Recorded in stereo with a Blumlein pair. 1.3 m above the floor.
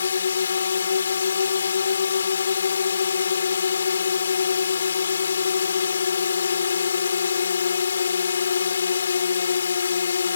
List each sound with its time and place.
0.0 s a drone: 70° left